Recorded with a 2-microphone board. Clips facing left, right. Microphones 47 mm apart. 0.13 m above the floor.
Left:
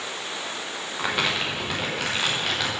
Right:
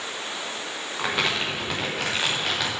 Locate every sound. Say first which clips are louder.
1.0 s crumpling: even; centre (ahead or behind), 4 m